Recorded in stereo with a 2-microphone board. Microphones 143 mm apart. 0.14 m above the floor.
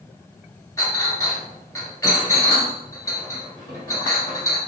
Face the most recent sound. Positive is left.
turn(degrees=20)  # may be behind; listen again after turning